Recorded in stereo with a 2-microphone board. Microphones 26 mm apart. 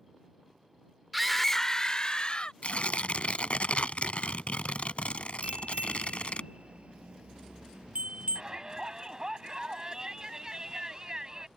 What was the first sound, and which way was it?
A scream, 5° right (ahead or behind).